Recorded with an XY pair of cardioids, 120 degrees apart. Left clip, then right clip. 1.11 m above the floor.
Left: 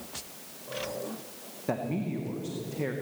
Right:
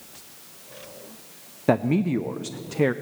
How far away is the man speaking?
About 0.6 m.